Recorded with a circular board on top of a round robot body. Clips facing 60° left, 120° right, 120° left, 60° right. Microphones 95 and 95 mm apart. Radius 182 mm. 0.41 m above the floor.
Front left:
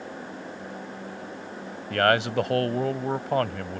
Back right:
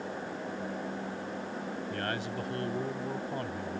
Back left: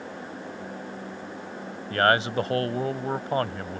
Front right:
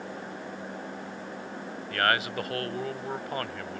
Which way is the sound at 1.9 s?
60° left.